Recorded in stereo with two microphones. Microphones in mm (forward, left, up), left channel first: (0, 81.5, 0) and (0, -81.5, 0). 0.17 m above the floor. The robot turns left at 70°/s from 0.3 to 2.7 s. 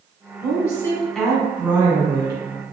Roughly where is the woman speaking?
Left.